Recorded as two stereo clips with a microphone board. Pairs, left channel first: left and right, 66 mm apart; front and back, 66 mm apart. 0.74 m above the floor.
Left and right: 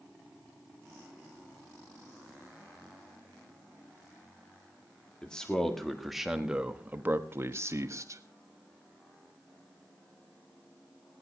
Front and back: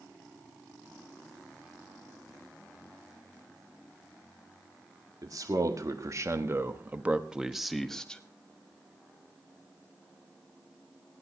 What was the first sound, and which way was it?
A man speaking, 165° left.